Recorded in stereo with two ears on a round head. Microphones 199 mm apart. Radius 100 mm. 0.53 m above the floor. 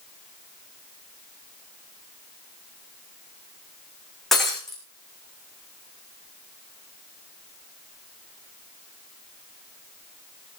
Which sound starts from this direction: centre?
Breaking glass, at 4.3 s.